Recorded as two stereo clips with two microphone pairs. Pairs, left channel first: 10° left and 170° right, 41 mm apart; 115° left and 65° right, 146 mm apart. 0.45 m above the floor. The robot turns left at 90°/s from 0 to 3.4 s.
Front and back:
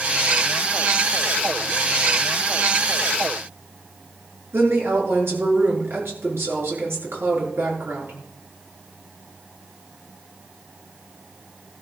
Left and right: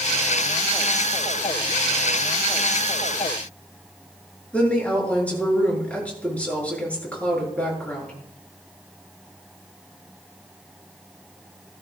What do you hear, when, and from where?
4.5 s a woman speaking: 160° right, 6.5 m